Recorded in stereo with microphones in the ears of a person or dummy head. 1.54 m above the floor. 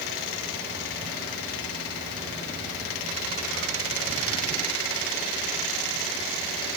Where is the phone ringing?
I don't hear a phone ringing.